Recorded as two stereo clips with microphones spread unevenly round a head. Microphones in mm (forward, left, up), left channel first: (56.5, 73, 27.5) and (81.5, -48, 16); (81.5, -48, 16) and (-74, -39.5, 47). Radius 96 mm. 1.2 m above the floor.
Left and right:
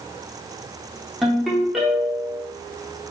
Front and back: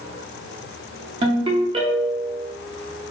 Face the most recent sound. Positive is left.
turn(degrees=-175)